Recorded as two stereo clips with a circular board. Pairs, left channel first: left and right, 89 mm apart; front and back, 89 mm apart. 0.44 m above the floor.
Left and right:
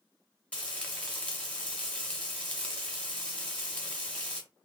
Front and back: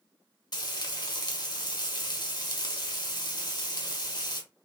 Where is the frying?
20° left, 1.4 m.